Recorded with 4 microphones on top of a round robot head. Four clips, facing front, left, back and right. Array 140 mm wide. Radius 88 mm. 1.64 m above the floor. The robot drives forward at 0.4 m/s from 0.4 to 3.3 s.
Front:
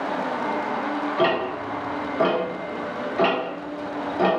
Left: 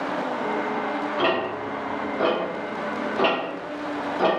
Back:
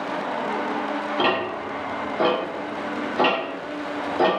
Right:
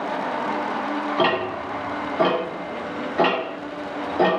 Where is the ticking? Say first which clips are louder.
Right 2 dB, front 1 dB; 85° right, 1.2 m; by 4.3 s 120° right, 1.4 m.